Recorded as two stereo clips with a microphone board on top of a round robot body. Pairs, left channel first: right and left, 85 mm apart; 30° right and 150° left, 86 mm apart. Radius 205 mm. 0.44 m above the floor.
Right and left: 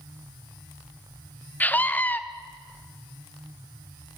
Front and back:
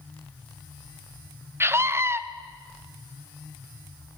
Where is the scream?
155° right, 1.5 m.